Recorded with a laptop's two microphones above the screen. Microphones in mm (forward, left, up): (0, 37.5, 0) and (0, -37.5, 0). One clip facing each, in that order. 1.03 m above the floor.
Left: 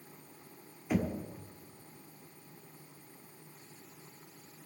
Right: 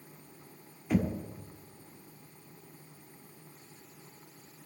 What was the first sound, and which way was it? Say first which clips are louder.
Knocking: right 3 dB; 5° left (ahead or behind).